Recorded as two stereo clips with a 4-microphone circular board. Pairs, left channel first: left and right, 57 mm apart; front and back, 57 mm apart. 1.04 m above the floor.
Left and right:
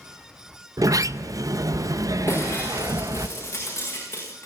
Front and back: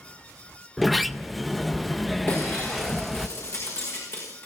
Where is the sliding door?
90° right, 0.6 m.